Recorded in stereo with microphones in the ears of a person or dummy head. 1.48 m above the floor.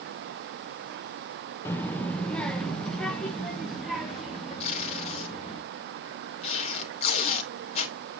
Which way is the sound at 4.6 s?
40° left (ahead or behind).